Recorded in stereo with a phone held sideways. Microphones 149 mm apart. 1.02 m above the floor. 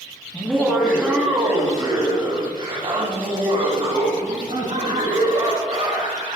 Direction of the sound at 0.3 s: 10° left (ahead or behind).